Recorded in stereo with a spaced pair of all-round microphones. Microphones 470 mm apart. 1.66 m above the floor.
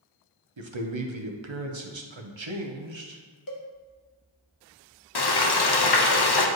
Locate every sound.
0.6 s a man speaking: 70° right (ahead or behind), 0.9 m
3.5 s a cowbell: 45° left (ahead or behind), 0.9 m
5.2 s frying: 55° left (ahead or behind), 0.7 m